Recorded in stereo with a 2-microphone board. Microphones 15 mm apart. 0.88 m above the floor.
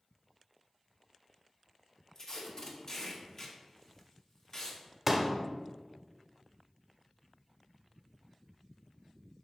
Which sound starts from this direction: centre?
A pop, at 5.1 s.